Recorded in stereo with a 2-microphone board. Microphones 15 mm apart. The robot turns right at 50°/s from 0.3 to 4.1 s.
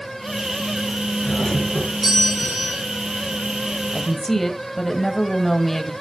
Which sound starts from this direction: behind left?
A doorbell, at 1.2 s.